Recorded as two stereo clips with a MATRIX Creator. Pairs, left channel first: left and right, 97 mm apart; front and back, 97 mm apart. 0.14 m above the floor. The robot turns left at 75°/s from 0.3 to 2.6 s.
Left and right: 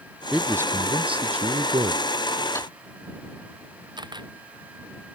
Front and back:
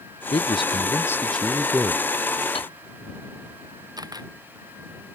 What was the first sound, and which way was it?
A man speaking, 5° right.